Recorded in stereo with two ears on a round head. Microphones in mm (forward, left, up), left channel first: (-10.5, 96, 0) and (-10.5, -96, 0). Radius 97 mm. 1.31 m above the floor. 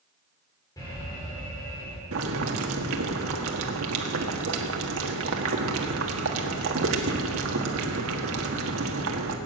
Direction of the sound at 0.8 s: 15° left (ahead or behind).